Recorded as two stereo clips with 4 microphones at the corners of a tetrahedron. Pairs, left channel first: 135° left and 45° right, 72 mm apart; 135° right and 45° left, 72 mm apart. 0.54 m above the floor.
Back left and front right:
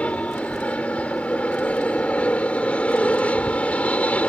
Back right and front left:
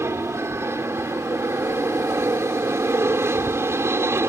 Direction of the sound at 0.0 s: 75° left.